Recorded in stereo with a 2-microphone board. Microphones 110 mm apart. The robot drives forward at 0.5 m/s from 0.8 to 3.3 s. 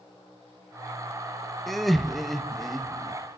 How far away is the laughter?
About 0.8 m.